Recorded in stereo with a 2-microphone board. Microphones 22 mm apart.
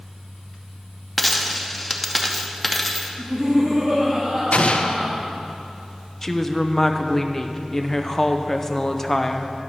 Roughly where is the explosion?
Left.